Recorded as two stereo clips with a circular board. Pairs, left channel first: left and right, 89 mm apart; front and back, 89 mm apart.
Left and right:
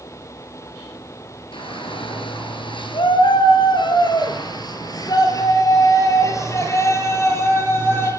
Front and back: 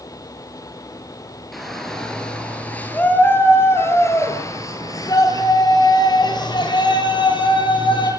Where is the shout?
90° left, 6 m; by 8.1 s 25° left, 9 m.